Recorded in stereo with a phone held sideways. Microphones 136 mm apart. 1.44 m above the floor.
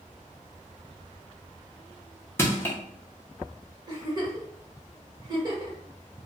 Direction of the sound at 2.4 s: 20° left (ahead or behind).